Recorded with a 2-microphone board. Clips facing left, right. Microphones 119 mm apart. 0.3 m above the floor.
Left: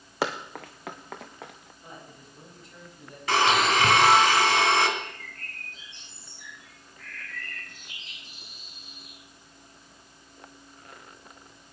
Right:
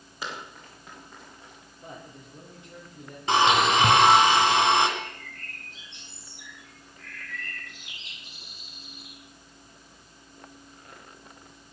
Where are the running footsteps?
70° left (ahead or behind), 1.6 m; by 1.7 s 85° left, 2.5 m.